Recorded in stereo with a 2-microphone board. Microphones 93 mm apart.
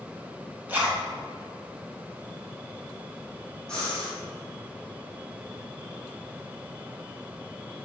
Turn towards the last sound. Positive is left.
turn(degrees=10)  # may be behind; listen again after turning